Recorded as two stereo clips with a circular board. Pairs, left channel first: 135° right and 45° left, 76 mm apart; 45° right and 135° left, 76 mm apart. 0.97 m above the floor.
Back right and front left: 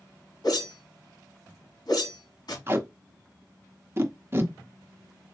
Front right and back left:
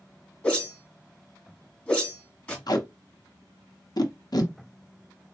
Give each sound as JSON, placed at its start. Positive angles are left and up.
{"t": 0.4, "sound": "a whoosh", "azimuth_deg": -115, "distance_m": 2.0}
{"t": 2.7, "sound": "tape being pulled", "azimuth_deg": -10, "distance_m": 0.8}